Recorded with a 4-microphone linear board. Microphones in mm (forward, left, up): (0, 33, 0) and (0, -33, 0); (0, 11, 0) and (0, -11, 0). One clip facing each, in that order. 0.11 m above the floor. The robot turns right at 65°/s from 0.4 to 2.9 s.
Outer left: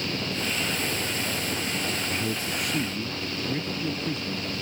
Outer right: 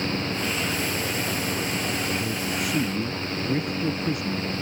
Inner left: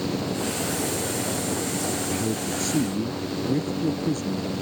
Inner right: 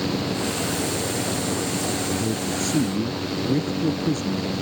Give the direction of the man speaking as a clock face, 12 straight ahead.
7 o'clock.